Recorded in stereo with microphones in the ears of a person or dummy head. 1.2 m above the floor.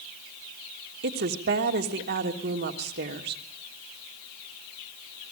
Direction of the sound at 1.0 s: 65° right (ahead or behind).